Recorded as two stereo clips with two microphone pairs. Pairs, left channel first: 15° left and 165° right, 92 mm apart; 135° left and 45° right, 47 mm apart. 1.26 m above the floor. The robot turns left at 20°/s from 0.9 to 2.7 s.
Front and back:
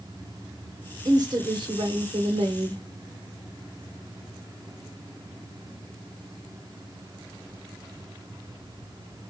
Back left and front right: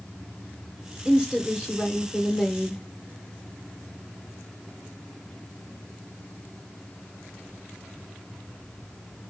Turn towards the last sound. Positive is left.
turn(degrees=-150)